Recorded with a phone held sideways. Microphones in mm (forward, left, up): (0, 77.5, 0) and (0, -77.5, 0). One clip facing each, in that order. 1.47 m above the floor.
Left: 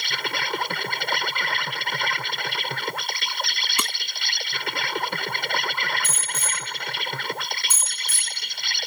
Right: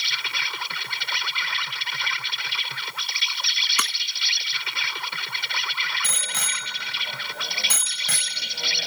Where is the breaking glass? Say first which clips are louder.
Left 1 dB; 30° left (ahead or behind).